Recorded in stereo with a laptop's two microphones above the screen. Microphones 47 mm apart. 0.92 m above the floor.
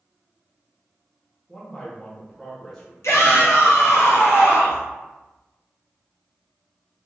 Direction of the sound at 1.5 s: 5° left (ahead or behind).